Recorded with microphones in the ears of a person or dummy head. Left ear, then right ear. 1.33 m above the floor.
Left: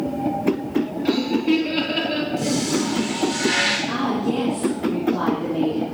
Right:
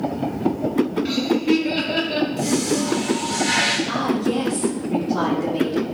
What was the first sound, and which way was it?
Laughter, 15° right (ahead or behind).